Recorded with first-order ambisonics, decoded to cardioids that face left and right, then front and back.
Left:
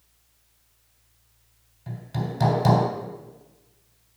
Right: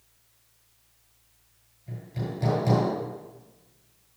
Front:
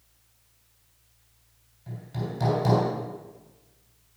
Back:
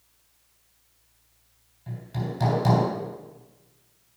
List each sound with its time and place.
1.9 s hammering: 95° left, 3 m